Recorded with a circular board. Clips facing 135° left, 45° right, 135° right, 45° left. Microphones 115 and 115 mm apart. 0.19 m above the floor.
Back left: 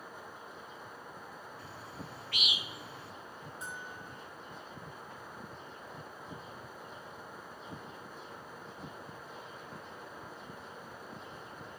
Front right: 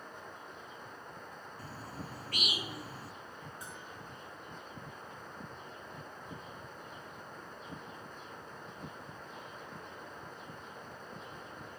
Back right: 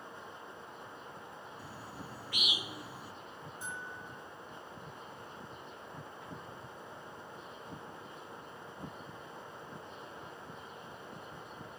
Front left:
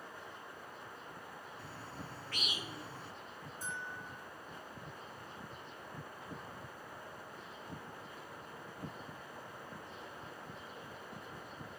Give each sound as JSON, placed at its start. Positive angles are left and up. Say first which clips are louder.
{"t": 1.6, "sound": "a bird", "louder": "front right 1 dB, even", "azimuth_deg": -65, "distance_m": 0.8}
{"t": 3.6, "sound": "a bell", "louder": "back left 2 dB, front left 1 dB", "azimuth_deg": -165, "distance_m": 7.0}